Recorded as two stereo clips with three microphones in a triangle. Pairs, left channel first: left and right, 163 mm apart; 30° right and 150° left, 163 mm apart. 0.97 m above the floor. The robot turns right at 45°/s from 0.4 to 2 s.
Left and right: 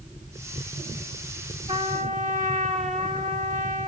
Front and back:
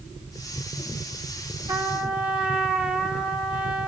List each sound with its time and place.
1.7 s a trumpet: 140° right, 1.1 m; by 3.9 s 125° right, 1.1 m